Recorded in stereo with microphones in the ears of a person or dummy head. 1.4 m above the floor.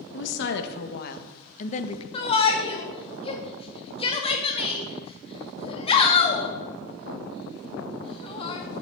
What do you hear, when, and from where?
0.1 s a woman speaking: 70° left (ahead or behind), 1.7 m; by 2.0 s 35° left (ahead or behind), 1.0 m
2.1 s a shout: 30° left (ahead or behind), 2 m